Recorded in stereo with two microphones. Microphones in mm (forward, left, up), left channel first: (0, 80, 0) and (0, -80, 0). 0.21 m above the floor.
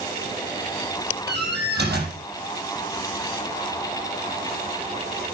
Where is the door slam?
80° right, 5.5 m.